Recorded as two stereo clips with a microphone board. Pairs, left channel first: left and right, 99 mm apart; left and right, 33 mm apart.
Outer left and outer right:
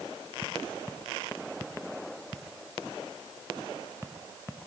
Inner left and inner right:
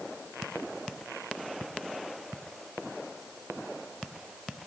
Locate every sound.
Only background noise.